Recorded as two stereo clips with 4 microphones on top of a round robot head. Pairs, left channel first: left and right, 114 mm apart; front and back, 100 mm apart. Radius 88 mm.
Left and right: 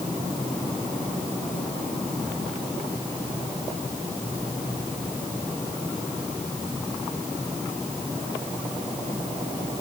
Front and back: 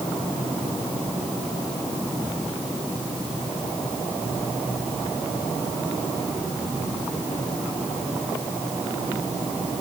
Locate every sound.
Only background noise.